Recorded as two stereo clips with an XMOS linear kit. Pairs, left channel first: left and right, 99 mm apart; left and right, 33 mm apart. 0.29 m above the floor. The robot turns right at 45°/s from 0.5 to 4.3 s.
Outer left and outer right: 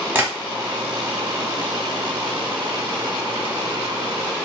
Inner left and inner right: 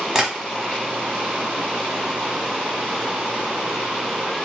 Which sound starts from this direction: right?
Tapping, at 0.1 s.